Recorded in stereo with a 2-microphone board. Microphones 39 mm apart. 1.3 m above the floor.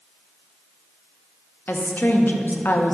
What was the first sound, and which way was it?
A woman speaking, 60° left (ahead or behind).